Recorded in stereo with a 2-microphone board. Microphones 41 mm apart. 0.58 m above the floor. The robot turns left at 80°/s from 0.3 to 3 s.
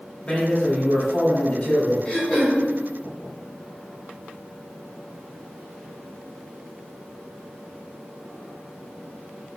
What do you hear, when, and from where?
0.2 s a man speaking: 145° left, 1.8 m; by 1.9 s 10° left, 1.8 m
2.0 s throat clearing: 20° left, 1.9 m; by 2.6 s 25° right, 1.9 m